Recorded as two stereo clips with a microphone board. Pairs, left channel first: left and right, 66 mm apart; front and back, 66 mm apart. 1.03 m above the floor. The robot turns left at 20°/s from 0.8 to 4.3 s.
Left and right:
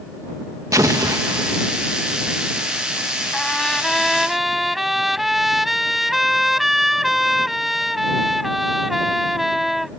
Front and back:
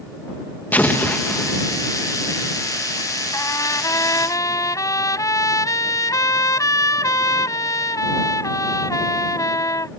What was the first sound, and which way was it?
An explosion, 60° right.